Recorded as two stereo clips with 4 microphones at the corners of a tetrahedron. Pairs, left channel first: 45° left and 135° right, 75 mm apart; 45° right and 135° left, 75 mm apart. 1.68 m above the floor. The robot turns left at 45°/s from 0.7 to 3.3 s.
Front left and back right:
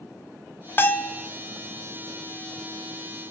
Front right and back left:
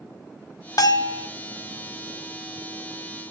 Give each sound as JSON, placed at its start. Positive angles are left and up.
{"t": 0.8, "sound": "a bell", "azimuth_deg": -15, "distance_m": 0.5}